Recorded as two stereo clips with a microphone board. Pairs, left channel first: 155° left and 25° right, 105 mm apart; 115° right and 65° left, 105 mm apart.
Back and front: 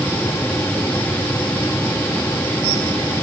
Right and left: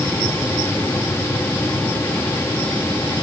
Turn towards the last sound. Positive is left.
No sound to turn to.